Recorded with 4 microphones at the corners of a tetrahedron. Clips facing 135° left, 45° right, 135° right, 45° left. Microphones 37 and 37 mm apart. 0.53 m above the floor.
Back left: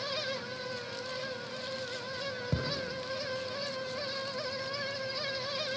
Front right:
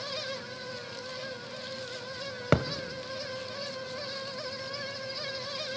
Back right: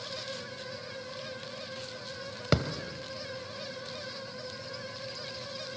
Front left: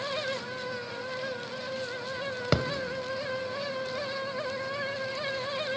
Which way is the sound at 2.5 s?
40° right.